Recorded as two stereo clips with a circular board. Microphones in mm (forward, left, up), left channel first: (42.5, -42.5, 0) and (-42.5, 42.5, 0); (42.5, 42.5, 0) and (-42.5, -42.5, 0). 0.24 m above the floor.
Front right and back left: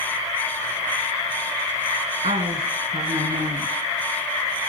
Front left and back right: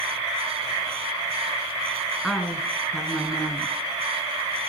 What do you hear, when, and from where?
2.2 s a woman speaking: 135° left, 2.5 m